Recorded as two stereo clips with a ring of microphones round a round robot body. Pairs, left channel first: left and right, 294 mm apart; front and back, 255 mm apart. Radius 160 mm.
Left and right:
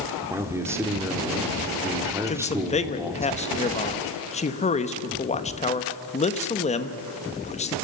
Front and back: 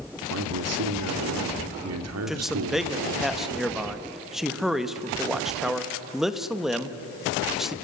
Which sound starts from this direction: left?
A man speaking, at 2.3 s.